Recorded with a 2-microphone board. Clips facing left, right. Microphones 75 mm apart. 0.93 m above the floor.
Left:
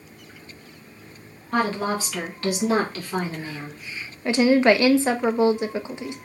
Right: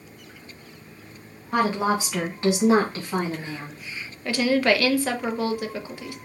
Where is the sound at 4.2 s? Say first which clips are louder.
Left 4 dB; 25° left (ahead or behind), 0.6 m.